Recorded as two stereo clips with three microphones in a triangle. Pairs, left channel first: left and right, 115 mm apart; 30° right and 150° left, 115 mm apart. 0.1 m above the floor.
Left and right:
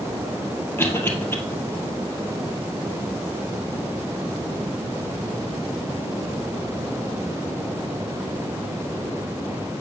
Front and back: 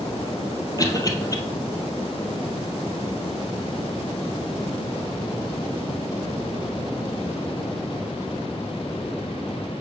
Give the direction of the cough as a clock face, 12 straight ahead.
11 o'clock.